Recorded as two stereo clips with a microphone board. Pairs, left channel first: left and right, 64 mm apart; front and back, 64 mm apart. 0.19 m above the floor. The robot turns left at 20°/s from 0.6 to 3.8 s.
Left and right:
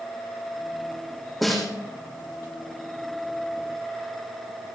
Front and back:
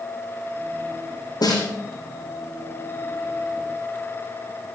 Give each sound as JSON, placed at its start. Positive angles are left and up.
{"t": 1.4, "sound": "a snare drum", "azimuth_deg": 0, "distance_m": 6.5}